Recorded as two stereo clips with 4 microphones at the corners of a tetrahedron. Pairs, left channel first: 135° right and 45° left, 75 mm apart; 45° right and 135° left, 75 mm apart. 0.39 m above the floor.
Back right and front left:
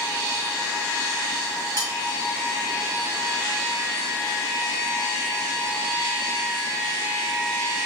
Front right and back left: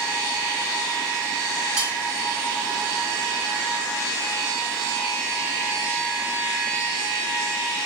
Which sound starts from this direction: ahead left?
Cutlery clinking, at 1.8 s.